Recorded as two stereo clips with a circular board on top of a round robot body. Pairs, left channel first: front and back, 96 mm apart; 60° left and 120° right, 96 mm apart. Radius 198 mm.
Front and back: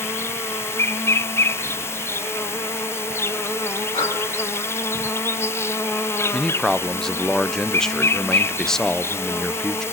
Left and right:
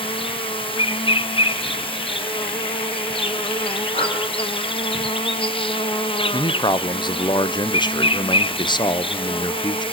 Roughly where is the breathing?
Ahead left.